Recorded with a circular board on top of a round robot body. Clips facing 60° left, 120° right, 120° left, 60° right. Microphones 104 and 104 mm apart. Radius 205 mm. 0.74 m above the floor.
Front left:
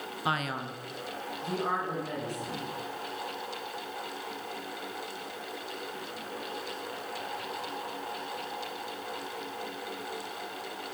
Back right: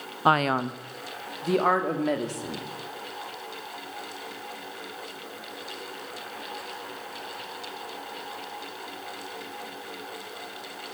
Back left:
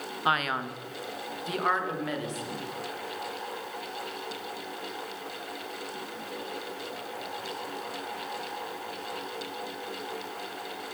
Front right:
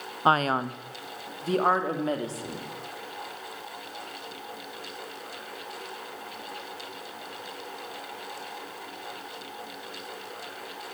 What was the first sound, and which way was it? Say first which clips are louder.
A man speaking: back right 10 dB, front right 5 dB; 105° right.